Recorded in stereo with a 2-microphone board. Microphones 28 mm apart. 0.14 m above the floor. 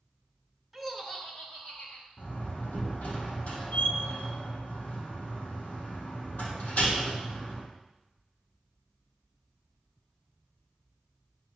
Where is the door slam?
65° left (ahead or behind), 4 m.